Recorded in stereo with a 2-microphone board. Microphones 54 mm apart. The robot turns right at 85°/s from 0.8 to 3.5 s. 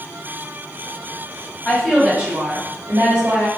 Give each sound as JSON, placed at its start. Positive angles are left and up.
{"t": 1.6, "sound": "a woman speaking", "azimuth_deg": 155, "distance_m": 1.7}